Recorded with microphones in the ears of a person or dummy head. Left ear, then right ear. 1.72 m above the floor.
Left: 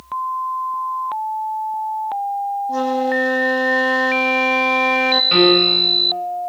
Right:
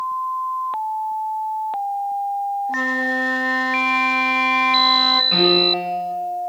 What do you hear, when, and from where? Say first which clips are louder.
2.7 s a flute: left 3 dB; 15° left (ahead or behind), 2.5 m
5.3 s a piano: left 3 dB; 55° left (ahead or behind), 8 m